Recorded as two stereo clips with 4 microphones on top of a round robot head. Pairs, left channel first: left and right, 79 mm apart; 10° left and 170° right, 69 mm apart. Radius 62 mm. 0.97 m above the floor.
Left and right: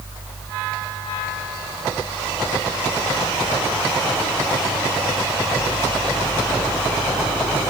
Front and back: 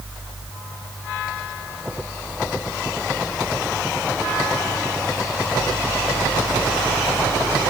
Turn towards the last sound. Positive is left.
No sound to turn to.